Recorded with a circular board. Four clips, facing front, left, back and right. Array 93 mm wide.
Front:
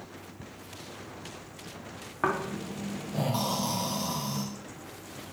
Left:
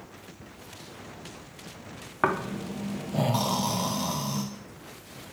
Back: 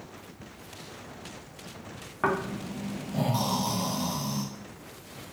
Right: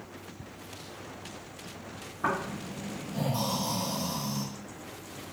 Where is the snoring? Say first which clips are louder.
Left 4 dB, back 1 dB; 90° left, 0.5 m.